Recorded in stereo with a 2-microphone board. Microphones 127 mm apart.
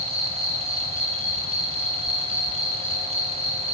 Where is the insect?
50° right (ahead or behind), 8.5 m.